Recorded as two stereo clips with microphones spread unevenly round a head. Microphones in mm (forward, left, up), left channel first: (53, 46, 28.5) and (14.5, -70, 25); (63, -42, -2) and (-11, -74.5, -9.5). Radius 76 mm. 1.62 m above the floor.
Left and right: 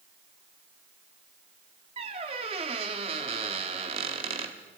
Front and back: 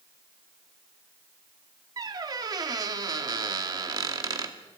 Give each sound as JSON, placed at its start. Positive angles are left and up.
{"t": 2.0, "sound": "a squeak", "azimuth_deg": -150, "distance_m": 1.4}